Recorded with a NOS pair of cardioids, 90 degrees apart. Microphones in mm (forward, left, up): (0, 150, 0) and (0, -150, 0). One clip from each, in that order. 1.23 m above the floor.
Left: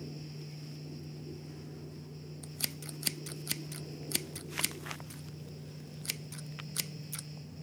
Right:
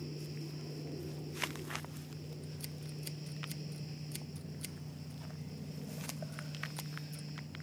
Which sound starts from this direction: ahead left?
Scissors, at 2.4 s.